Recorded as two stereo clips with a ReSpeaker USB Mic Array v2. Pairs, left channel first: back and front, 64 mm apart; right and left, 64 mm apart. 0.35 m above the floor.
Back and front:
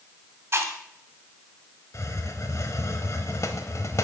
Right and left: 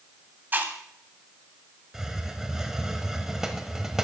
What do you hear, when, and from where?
0.5 s chewing: 40° left, 1.5 m
1.9 s a hiss: 170° left, 1.0 m